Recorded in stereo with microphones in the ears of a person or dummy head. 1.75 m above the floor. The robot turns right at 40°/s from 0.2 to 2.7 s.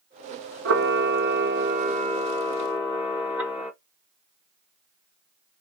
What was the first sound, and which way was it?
A camera shutter, 90° right.